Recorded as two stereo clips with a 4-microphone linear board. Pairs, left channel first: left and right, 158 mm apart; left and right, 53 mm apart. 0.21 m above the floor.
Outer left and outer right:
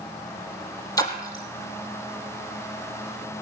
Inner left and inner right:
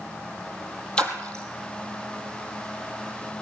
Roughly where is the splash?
Left.